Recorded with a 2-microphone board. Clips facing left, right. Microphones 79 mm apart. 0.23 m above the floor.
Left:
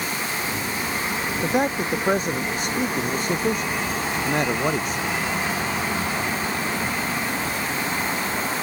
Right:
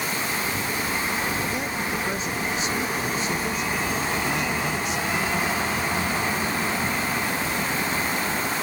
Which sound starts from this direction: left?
A man speaking, at 1.4 s.